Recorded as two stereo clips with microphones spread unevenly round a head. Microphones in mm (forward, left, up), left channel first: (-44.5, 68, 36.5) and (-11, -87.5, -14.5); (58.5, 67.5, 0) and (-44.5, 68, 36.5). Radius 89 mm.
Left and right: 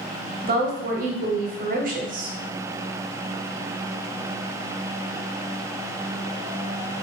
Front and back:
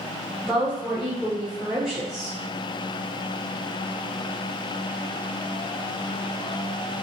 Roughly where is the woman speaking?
Right.